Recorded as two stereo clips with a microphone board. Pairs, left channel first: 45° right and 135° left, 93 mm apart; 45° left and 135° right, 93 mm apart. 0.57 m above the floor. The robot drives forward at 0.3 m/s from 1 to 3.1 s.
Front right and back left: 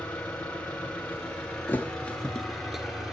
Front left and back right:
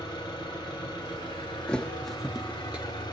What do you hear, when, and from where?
0.0 s an engine running: 30° left, 1.6 m; by 3.1 s 50° left, 1.1 m
1.7 s a thud: 15° right, 0.5 m; by 2.9 s 150° right, 0.5 m